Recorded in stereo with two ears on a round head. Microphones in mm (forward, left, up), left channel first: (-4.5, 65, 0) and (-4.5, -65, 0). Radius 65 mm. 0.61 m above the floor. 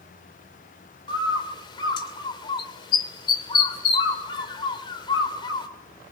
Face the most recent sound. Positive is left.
turn(degrees=35)  # may be behind; listen again after turning